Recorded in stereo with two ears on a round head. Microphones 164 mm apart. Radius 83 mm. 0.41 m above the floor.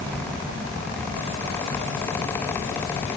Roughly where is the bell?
No bell in this recording.